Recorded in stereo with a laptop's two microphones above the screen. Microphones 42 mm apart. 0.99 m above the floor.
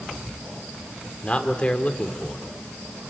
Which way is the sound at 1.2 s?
30° left (ahead or behind).